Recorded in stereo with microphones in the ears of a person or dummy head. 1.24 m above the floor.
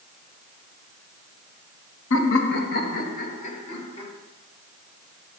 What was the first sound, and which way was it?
Laughter, 75° left (ahead or behind).